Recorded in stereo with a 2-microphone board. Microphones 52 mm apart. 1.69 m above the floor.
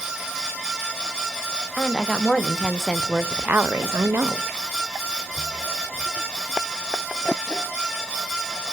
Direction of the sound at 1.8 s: 15° left (ahead or behind).